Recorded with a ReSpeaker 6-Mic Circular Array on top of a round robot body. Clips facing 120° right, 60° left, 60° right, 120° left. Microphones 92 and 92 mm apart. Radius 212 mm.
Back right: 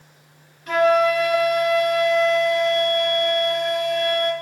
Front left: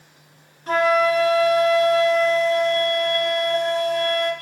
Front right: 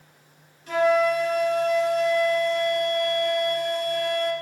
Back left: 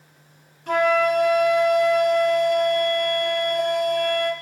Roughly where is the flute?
Left.